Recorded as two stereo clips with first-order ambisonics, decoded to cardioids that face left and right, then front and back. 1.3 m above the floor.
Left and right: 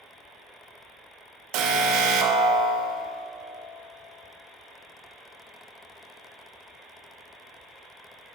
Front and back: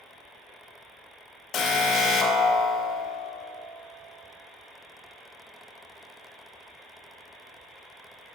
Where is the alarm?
60° right, 0.6 m.